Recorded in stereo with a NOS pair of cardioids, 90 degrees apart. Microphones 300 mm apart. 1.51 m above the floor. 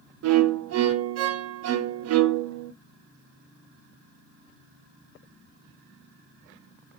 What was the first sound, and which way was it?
A violin, 55° right.